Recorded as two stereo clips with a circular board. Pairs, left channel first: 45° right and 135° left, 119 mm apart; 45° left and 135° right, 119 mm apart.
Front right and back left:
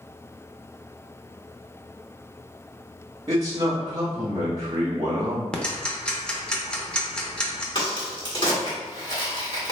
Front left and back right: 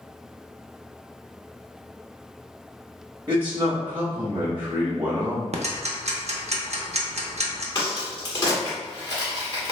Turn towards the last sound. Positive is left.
turn(degrees=-5)